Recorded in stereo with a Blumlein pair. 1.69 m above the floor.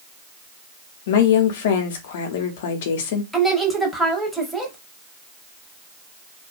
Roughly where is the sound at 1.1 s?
Ahead left.